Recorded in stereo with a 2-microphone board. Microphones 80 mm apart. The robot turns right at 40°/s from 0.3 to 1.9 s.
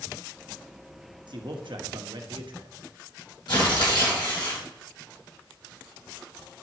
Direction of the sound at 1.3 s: 70° right (ahead or behind).